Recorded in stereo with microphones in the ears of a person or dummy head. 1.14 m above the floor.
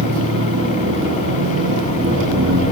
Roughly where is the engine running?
Right.